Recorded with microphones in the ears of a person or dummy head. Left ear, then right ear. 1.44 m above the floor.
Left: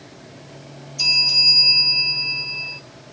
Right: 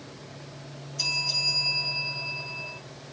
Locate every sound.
1.0 s a bell: 20° left (ahead or behind), 8 m